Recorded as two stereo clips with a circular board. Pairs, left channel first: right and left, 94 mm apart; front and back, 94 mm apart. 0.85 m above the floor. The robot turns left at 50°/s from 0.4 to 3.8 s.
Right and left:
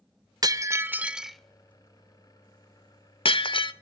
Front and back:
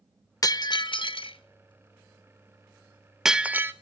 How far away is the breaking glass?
About 0.9 m.